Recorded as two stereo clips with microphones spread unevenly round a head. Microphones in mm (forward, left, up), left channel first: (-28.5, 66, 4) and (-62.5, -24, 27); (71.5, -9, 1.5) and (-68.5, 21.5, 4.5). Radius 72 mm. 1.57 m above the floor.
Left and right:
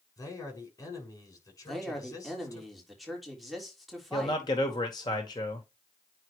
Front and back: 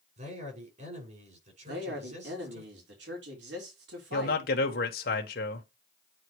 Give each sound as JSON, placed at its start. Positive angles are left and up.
{"t": 0.2, "sound": "a man speaking", "azimuth_deg": 125, "distance_m": 6.5}
{"t": 1.6, "sound": "a man speaking", "azimuth_deg": 160, "distance_m": 4.0}
{"t": 4.1, "sound": "a man speaking", "azimuth_deg": 10, "distance_m": 1.6}